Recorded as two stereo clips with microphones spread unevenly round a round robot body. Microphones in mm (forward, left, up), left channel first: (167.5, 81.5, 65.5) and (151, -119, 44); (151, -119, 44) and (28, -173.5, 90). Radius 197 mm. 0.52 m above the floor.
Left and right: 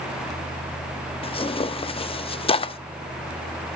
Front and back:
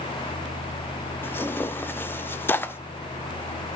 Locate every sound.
1.2 s tearing paper: 30° left, 0.7 m